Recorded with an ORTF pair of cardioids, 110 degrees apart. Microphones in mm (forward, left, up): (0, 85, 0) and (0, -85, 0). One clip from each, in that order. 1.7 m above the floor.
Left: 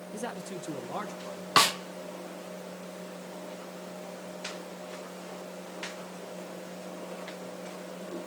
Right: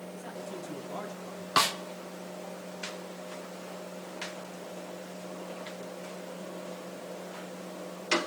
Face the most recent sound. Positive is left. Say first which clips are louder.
# left 3 dB
turn(degrees=15)